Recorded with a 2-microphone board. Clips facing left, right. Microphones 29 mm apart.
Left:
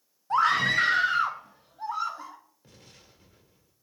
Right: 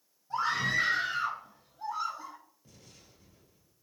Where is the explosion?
55° left (ahead or behind), 1.6 m.